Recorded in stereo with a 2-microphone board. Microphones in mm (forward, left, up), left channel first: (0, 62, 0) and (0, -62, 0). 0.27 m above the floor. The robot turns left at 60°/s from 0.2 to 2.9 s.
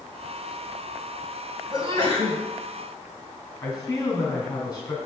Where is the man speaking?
30° left (ahead or behind), 3 m.